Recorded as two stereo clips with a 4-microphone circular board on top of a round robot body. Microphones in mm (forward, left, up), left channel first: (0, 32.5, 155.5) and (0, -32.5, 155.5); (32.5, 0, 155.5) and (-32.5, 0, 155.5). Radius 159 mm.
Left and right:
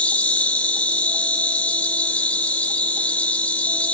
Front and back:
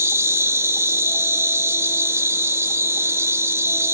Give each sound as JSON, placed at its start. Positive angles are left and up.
{"t": 0.0, "sound": "an insect", "azimuth_deg": 150, "distance_m": 0.8}